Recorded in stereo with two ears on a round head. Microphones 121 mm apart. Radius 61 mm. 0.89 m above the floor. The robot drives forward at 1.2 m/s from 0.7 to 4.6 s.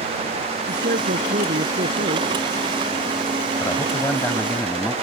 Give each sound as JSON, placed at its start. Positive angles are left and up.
{"t": 0.7, "sound": "a man speaking", "side_deg": -70}
{"t": 3.6, "sound": "a man speaking", "side_deg": 15}